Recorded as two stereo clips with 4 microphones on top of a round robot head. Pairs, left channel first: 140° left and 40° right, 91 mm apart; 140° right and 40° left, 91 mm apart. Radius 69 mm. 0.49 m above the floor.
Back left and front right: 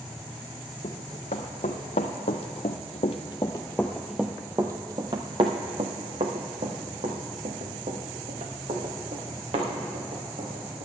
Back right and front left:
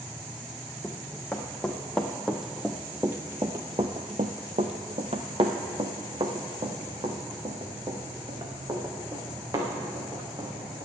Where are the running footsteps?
140° left, 1.7 m; by 10.8 s 20° right, 3.5 m.